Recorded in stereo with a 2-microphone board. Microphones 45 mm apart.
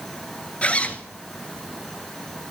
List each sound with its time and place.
0.6 s a zipper: 30° left (ahead or behind), 1.0 m